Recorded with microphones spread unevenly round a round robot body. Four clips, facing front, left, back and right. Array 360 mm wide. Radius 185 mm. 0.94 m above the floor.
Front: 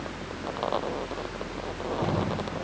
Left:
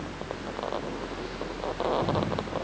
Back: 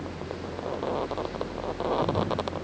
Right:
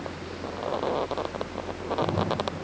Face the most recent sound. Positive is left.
No sound to turn to.